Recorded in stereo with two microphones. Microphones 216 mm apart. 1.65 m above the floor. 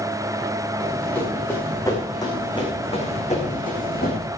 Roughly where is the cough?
No cough in this recording.